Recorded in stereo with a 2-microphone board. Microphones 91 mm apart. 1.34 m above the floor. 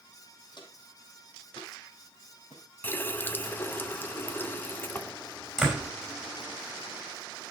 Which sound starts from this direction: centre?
A door slam, at 5.6 s.